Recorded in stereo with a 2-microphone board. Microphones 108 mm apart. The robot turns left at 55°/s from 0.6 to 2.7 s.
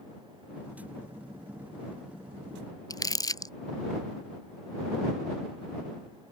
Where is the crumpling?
35° left (ahead or behind).